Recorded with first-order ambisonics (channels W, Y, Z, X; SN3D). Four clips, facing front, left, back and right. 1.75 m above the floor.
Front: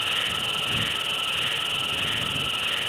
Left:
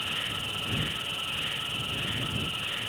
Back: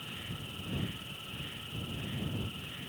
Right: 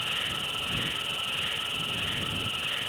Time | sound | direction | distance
0.0 | an insect | 5° right | ?